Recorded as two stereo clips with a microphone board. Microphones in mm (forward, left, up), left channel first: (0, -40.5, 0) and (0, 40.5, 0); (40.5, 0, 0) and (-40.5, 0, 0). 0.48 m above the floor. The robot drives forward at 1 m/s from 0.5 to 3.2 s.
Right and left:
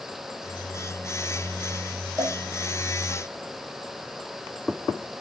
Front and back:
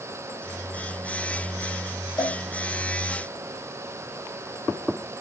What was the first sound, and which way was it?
A cowbell, 30° left.